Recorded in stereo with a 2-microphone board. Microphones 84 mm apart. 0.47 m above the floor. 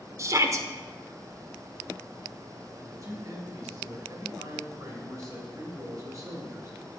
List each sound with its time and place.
0.2 s a shout: 40° right (ahead or behind), 0.9 m
2.8 s a man speaking: 40° right (ahead or behind), 2.5 m